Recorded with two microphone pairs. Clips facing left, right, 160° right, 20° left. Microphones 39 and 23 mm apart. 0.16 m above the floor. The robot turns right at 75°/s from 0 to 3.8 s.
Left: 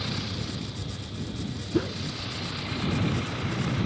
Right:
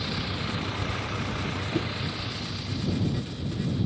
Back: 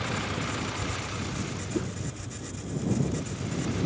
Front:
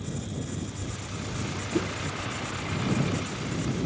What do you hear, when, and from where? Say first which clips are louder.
0.0 s a vehicle: right 2 dB, back 5 dB; 175° right; by 3.9 s 115° left
1.7 s a whoosh: left 5 dB, front 4 dB; 80° left; by 2.0 s 100° left